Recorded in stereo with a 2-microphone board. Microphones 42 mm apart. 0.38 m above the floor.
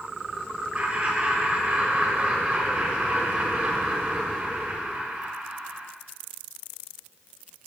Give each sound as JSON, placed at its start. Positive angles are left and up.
{"t": 0.8, "sound": "laughter", "side_deg": -35, "distance_m": 1.5}